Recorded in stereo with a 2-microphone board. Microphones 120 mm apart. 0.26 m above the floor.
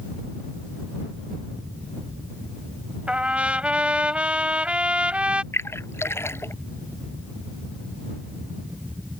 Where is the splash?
20° left (ahead or behind).